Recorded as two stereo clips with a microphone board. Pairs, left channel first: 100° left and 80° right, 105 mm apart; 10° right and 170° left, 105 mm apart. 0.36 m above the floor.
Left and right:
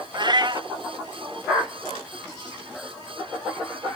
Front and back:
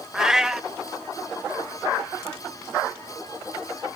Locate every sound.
0.1 s a cat meowing: 105° right, 0.7 m